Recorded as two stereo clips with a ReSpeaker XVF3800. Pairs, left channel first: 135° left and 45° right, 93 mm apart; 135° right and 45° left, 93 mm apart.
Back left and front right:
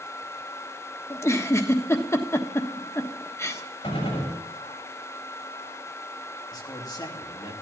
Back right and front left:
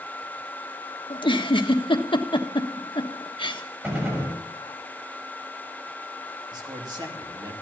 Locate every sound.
1.1 s a giggle: 165° right, 1.3 m
3.8 s a gunshot: 110° left, 6 m
6.5 s a man speaking: 85° left, 3 m